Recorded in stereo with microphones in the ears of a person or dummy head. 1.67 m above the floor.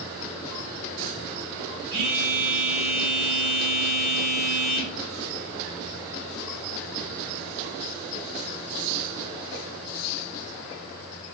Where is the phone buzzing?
30° right (ahead or behind), 1.1 m.